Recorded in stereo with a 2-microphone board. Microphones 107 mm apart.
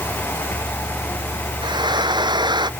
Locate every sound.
1.6 s frying: 40° right (ahead or behind)